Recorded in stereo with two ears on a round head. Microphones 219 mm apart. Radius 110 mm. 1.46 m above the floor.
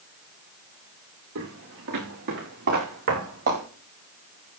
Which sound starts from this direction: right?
Footsteps, at 1.4 s.